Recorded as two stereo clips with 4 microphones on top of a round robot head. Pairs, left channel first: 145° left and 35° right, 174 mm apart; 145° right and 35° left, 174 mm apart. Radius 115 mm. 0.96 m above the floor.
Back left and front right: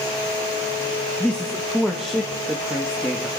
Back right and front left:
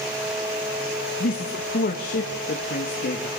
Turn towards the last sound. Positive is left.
turn(degrees=-120)